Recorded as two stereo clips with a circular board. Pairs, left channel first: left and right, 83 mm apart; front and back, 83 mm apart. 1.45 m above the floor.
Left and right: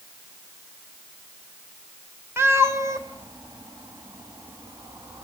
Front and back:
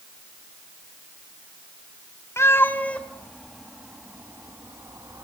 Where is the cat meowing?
40° right, 1.7 m; by 5.2 s 140° right, 2.5 m.